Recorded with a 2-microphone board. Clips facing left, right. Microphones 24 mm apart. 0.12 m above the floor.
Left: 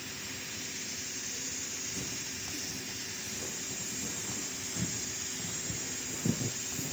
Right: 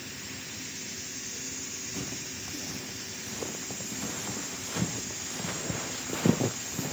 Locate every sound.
1.9 s footsteps: 45° right (ahead or behind), 3.5 m